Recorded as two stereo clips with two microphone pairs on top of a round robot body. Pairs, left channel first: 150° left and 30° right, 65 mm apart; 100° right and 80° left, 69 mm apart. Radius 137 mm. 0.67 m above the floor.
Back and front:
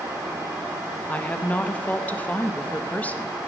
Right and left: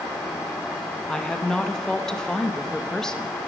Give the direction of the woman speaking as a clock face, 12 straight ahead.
6 o'clock.